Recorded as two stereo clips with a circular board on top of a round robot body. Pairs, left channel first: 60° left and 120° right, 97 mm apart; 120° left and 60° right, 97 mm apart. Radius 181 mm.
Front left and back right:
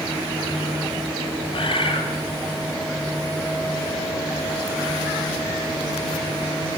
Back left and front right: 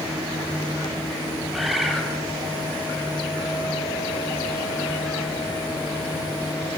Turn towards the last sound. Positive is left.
turn(degrees=25)